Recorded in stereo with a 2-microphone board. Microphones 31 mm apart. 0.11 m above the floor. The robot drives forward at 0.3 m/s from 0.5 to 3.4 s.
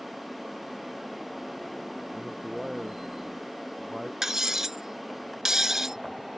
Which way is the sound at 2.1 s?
15° right (ahead or behind).